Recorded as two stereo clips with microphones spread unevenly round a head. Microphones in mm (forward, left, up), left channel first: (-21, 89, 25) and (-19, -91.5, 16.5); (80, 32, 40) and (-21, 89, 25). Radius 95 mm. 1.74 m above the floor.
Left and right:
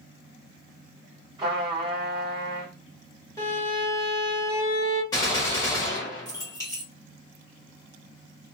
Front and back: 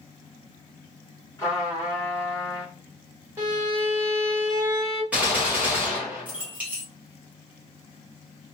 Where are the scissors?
No scissors in this recording.